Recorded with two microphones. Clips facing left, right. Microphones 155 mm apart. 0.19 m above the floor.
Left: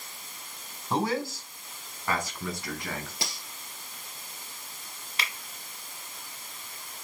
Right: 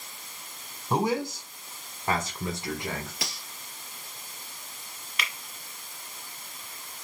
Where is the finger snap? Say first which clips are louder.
Even; 35° left (ahead or behind), 1.1 m.